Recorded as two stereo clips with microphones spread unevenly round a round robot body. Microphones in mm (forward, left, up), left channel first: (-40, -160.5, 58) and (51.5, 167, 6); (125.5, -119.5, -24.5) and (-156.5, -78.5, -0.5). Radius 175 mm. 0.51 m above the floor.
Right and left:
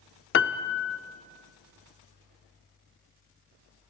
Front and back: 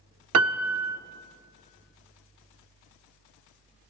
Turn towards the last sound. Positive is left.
turn(degrees=-160)